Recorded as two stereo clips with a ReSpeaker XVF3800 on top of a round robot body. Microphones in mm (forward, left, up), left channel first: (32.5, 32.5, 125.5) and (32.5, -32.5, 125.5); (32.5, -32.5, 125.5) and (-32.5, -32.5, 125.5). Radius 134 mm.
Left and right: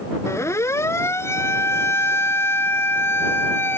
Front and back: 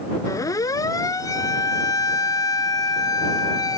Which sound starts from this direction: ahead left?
A siren, at 0.3 s.